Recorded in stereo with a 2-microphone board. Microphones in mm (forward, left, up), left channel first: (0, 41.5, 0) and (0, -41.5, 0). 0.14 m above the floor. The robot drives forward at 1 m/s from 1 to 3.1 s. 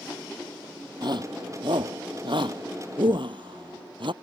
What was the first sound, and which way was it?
A shout, 60° right (ahead or behind).